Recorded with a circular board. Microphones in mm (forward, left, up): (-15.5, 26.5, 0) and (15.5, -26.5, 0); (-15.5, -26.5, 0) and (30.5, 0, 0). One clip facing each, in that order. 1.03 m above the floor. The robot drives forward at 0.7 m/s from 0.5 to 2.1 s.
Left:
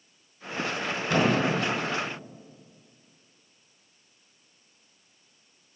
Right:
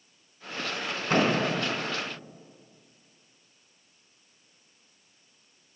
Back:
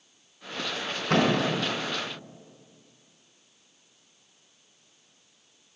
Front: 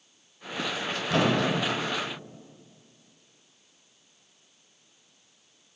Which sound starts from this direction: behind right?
A thud, at 1.1 s.